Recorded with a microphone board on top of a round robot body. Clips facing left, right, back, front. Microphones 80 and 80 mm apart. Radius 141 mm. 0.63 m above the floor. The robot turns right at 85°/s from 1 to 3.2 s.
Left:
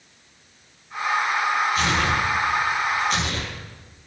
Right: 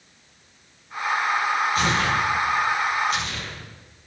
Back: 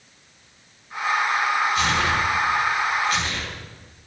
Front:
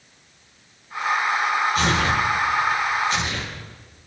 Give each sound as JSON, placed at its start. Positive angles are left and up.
{"t": 1.8, "sound": "tearing paper", "azimuth_deg": -45, "distance_m": 6.5}